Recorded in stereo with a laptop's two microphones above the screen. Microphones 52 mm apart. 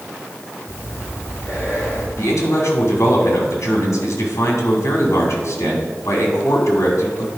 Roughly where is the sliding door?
I don't hear a sliding door.